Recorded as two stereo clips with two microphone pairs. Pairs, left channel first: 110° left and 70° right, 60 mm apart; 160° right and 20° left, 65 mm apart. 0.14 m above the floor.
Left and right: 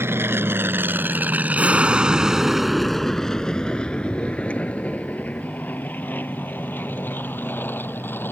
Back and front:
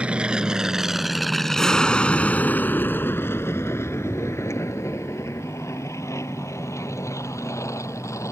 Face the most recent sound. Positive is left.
turn(degrees=160)